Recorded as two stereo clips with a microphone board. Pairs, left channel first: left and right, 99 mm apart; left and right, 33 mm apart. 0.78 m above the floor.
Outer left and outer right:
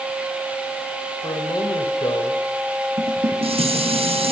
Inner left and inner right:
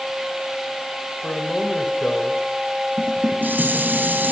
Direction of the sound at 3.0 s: 75° right (ahead or behind).